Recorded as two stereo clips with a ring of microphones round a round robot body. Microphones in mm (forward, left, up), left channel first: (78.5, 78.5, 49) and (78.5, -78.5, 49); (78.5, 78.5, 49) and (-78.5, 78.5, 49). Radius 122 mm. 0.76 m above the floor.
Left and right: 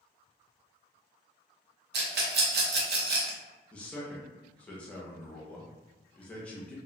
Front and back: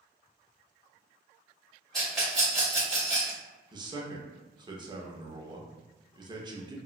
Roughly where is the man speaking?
Behind.